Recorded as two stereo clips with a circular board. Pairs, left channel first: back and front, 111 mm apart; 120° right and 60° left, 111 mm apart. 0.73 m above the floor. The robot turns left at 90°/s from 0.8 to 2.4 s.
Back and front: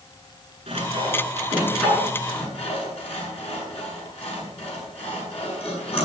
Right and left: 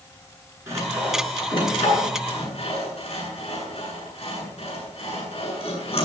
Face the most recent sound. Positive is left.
turn(degrees=-150)